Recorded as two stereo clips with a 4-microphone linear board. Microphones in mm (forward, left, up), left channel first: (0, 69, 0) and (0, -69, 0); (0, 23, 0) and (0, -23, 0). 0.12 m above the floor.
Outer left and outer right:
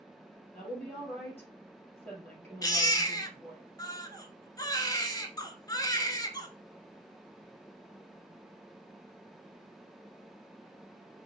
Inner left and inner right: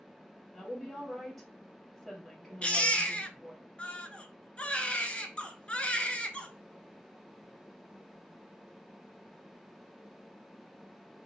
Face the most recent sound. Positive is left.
turn(degrees=30)  # may be behind; listen again after turning